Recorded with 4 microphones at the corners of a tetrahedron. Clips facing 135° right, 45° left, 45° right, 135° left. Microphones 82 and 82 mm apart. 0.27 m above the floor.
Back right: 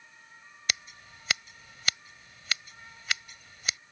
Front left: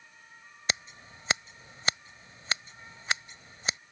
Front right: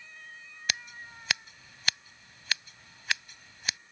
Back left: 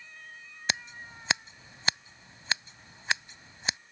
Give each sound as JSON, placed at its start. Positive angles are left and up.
{"t": 0.7, "sound": "scissors", "azimuth_deg": 85}